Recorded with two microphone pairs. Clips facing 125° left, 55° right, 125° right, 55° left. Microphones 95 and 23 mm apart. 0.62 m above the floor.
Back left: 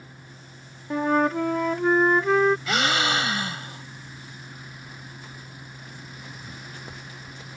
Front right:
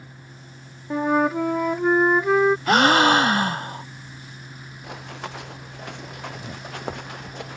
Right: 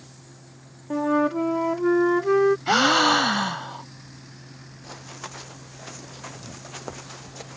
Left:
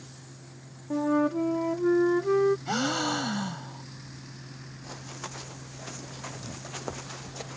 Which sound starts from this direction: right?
A gasp, at 2.7 s.